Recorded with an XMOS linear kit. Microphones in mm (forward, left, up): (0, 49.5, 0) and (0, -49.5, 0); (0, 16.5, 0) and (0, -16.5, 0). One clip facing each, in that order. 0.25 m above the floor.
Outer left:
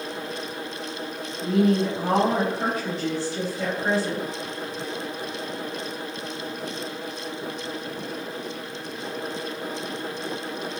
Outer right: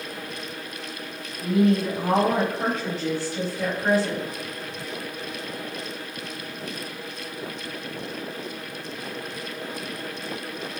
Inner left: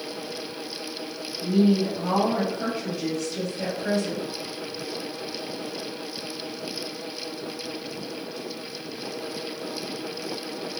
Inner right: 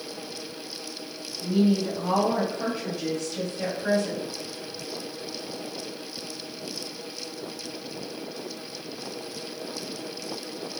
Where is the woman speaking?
35° left (ahead or behind), 1.8 m; by 4.2 s 30° right (ahead or behind), 1.8 m.